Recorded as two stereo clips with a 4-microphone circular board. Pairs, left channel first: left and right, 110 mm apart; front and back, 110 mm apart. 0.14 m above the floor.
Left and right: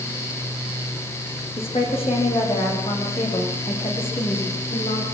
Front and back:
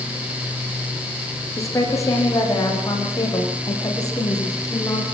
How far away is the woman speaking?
About 10 m.